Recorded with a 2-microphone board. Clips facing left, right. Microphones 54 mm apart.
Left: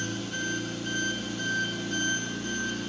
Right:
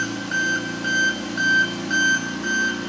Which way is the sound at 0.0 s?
80° right.